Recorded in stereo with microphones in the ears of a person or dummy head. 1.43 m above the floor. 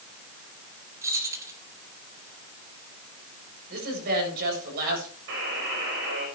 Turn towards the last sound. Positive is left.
turn(degrees=-60)  # may be behind; listen again after turning